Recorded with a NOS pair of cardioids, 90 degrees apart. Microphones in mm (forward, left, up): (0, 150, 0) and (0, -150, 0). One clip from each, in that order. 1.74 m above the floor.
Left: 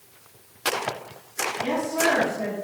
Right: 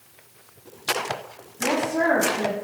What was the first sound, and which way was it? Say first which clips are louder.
A woman speaking: right 3 dB; 30° right.